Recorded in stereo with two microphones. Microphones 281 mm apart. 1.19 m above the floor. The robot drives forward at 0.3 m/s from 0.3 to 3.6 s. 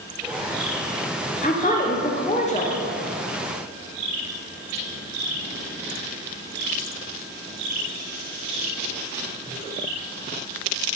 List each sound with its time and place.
1.4 s a woman speaking: 30° left (ahead or behind), 0.5 m; by 2.8 s 25° left (ahead or behind), 0.6 m